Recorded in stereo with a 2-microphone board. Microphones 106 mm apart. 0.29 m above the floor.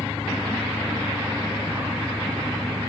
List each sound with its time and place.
0.0 s an engine running: 55° left (ahead or behind)